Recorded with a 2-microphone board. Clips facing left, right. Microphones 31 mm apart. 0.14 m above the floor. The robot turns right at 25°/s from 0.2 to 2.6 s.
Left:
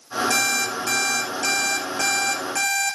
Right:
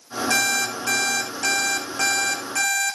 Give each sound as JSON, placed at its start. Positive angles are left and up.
{"t": 0.3, "sound": "an alarm clock", "azimuth_deg": -10, "distance_m": 3.5}